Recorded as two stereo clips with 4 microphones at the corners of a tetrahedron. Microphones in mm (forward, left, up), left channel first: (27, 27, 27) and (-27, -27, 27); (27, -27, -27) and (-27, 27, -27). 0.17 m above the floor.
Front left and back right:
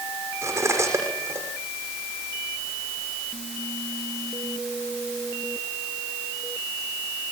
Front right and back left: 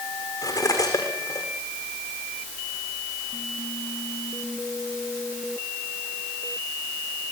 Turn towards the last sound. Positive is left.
turn(degrees=-80)